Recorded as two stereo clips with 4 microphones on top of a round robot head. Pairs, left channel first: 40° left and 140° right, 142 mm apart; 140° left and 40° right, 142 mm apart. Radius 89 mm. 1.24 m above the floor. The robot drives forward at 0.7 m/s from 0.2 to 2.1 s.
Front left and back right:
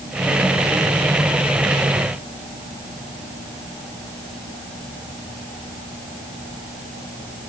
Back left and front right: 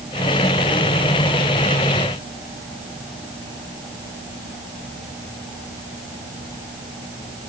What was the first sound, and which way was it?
Only background noise.